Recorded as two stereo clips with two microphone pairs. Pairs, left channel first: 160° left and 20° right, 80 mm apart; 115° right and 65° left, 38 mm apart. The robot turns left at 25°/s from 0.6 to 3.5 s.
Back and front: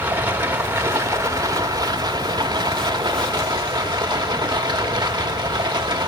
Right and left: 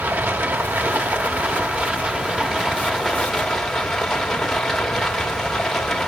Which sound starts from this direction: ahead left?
Running water, at 0.0 s.